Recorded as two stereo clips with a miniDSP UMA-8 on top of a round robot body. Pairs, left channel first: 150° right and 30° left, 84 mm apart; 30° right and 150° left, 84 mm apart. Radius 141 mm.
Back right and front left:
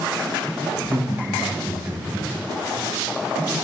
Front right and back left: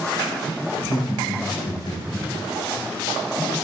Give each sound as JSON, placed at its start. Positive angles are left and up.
{"t": 0.7, "sound": "laughter", "azimuth_deg": -40, "distance_m": 3.5}